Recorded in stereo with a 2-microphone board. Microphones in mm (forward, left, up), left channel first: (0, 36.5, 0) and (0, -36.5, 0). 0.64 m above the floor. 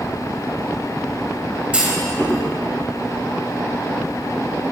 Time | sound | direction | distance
1.7 | a clunk | 15° right (ahead or behind) | 4 m